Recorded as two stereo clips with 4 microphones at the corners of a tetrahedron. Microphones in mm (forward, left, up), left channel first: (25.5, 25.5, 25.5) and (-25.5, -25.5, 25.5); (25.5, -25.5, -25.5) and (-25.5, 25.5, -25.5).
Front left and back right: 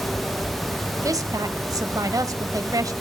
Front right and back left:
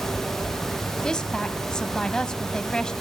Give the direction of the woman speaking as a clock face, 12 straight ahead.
4 o'clock.